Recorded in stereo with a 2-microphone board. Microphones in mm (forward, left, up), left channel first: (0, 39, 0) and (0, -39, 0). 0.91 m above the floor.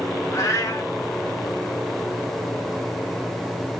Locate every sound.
0.3 s a cat meowing: 45° left (ahead or behind), 0.9 m